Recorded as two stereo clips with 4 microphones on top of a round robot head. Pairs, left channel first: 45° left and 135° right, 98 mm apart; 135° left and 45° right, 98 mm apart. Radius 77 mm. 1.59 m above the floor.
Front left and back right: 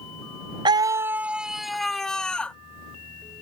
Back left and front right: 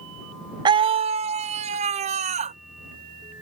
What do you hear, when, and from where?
0.7 s a scream: 90° right; by 2.6 s 35° right